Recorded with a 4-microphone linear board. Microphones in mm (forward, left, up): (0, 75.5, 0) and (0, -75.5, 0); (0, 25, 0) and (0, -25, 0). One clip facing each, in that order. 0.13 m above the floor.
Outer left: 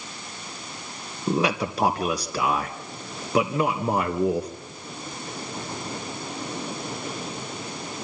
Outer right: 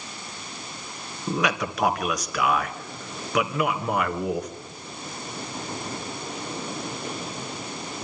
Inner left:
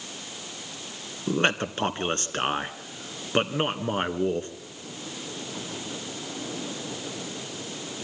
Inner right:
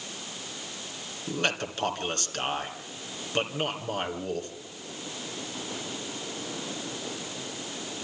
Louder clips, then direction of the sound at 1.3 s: Outer left 2 dB, inner left 5 dB; 30° left (ahead or behind).